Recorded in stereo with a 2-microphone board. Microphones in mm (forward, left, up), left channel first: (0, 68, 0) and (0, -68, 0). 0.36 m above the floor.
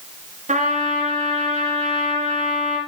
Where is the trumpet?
70° right (ahead or behind), 2.5 m.